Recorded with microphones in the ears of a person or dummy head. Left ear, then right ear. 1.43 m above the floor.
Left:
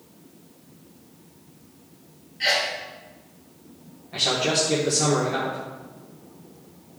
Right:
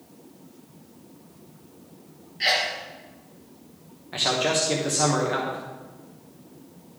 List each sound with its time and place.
2.4 s a sneeze: 15° right (ahead or behind), 1.3 m
4.1 s a man speaking: 40° right (ahead or behind), 1.2 m